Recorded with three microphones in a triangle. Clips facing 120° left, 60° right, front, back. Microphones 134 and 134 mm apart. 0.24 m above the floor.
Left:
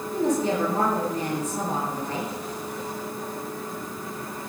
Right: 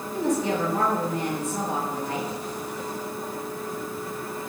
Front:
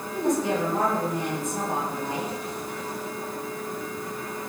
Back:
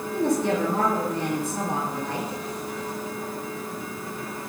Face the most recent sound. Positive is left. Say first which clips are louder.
# left 1 dB, back 1 dB
turn(degrees=170)